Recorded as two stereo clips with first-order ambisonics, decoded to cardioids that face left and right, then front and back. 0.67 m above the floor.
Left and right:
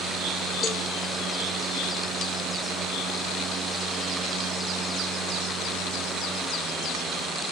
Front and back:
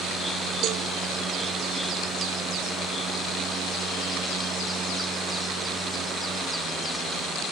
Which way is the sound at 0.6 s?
145° left.